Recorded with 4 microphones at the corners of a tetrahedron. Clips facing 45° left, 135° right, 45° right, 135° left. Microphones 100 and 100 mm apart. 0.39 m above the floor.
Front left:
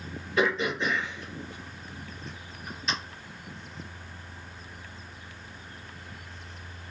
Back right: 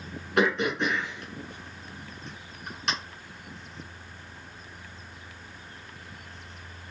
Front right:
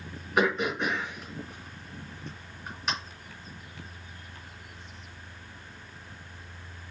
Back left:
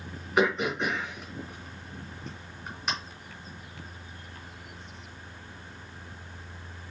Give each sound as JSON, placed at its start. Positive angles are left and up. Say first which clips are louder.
{"t": 0.4, "sound": "throat clearing", "louder": "back right 2 dB, back left 1 dB", "azimuth_deg": -130, "distance_m": 3.0}